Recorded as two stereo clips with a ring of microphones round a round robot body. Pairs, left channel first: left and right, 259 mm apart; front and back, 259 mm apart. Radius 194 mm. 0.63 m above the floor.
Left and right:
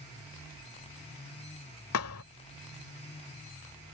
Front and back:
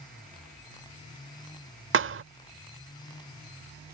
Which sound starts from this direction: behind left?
A thud, at 1.9 s.